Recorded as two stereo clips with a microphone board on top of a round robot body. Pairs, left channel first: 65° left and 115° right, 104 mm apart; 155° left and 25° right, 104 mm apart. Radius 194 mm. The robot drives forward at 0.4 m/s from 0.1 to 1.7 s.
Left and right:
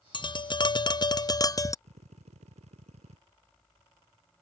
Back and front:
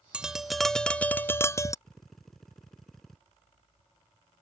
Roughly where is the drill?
Behind right.